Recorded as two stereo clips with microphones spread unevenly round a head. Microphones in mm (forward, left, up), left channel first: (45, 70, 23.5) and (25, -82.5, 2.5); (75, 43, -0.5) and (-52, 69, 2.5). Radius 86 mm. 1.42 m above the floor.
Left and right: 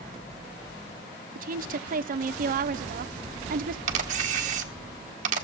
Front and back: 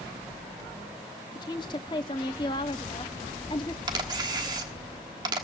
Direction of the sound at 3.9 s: 140° right.